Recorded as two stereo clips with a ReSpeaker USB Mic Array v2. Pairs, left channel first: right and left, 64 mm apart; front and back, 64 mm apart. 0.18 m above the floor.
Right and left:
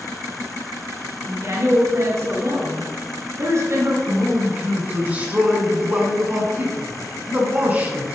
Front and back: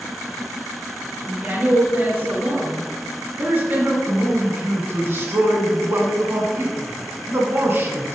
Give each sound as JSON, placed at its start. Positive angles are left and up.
{"t": 1.2, "sound": "a woman speaking", "azimuth_deg": 125, "distance_m": 2.0}
{"t": 4.1, "sound": "a man speaking", "azimuth_deg": 145, "distance_m": 1.7}